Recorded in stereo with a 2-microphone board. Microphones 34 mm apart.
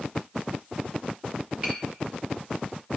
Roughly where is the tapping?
Right.